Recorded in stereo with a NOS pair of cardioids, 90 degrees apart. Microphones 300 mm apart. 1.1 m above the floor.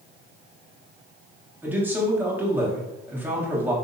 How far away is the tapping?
No tapping in this recording.